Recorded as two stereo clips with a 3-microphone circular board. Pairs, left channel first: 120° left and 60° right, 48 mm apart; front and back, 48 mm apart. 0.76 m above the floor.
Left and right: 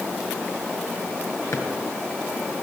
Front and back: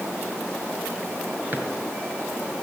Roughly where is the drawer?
Behind left.